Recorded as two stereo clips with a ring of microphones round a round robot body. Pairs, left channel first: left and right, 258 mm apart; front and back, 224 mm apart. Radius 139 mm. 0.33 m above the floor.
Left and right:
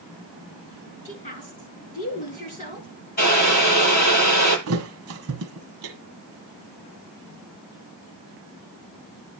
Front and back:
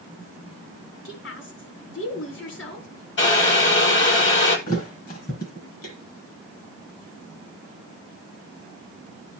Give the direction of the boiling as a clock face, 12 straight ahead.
11 o'clock.